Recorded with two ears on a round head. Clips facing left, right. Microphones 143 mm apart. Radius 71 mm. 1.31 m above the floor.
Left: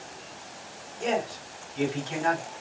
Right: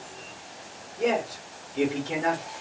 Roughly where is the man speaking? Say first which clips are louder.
Right 3 dB; right.